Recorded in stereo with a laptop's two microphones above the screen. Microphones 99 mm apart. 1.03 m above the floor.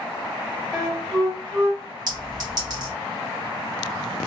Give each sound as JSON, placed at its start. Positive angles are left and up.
{"t": 0.7, "sound": "a flute", "side_deg": 10, "distance_m": 0.8}
{"t": 2.1, "sound": "a clink", "side_deg": -40, "distance_m": 1.1}